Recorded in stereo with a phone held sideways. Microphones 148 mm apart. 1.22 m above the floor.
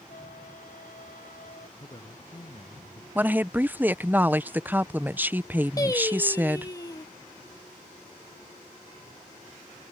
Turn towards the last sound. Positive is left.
turn(degrees=25)  # may be behind; listen again after turning